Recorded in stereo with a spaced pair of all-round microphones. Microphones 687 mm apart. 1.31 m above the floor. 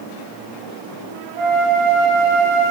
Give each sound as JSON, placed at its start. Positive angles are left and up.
{"t": 1.4, "sound": "a flute", "side_deg": -60, "distance_m": 4.0}